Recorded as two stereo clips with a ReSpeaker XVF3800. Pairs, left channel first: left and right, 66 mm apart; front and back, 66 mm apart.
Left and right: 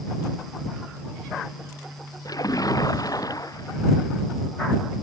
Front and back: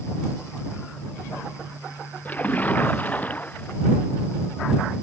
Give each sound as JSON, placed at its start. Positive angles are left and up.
{"t": 2.2, "sound": "a splash", "azimuth_deg": 70}